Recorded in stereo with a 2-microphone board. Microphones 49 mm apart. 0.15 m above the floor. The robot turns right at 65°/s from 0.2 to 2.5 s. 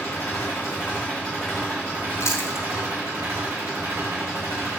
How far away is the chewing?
About 1.3 m.